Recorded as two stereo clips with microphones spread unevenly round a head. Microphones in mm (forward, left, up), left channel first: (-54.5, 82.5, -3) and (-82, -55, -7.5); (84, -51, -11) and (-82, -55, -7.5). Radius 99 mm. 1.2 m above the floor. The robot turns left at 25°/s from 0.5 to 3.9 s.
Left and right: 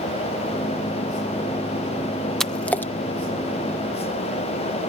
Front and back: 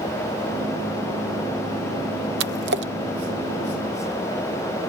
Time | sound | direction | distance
2.4 | a splash | 165° left | ?